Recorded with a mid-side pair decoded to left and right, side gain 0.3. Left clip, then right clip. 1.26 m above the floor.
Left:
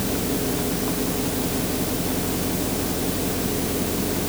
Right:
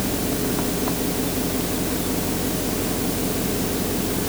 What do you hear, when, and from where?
Only background noise.